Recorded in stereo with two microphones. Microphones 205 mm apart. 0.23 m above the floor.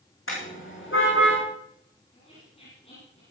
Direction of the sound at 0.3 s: 85° left.